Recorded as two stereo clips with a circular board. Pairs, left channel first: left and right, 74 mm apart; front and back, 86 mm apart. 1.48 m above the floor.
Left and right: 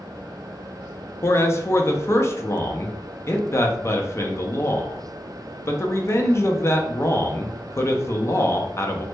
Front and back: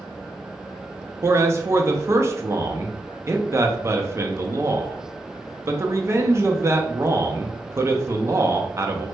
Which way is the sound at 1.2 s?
130° left.